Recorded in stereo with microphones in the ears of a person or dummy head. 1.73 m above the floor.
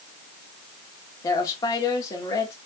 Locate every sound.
1.2 s a woman speaking: 20° left (ahead or behind), 2.5 m